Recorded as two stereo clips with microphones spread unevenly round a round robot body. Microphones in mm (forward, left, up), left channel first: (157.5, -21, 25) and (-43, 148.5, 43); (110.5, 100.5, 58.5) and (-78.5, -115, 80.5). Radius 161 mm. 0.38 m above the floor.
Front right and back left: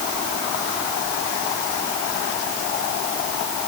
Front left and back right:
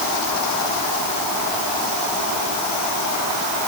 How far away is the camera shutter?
No camera shutter in this recording.